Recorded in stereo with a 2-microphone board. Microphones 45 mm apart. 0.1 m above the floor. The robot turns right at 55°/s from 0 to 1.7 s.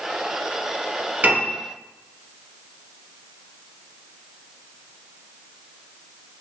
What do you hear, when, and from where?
1.2 s a piano: 35° right (ahead or behind), 1.7 m; by 1.6 s 30° right (ahead or behind), 1.7 m